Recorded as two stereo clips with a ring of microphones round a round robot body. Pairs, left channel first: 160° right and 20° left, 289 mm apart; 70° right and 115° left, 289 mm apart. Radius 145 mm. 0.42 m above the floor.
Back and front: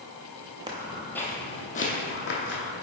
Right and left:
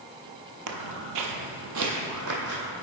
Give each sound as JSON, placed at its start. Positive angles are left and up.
{"t": 0.7, "sound": "footsteps", "azimuth_deg": 95, "distance_m": 0.7}